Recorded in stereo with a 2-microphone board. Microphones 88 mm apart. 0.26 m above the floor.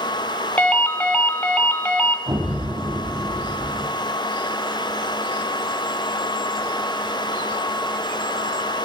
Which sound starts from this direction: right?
An explosion, at 2.3 s.